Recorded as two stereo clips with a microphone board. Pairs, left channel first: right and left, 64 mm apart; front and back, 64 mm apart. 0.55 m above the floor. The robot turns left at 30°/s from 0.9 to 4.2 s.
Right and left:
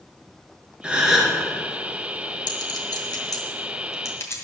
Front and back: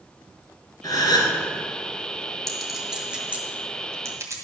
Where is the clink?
85° right, 2 m; by 4.3 s 140° right, 2 m.